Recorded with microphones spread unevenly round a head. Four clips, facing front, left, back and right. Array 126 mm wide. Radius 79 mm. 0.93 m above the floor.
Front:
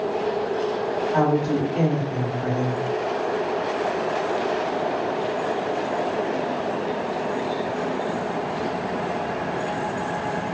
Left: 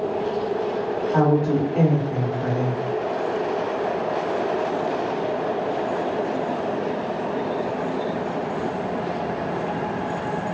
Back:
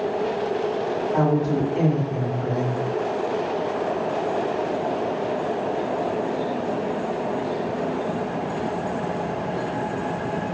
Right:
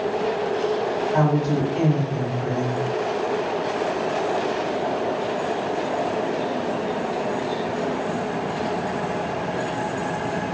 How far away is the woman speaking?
About 1.6 m.